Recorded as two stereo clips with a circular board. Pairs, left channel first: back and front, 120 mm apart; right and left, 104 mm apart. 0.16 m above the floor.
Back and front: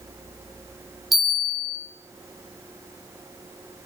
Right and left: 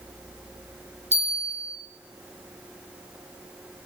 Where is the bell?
90° left, 6.5 m.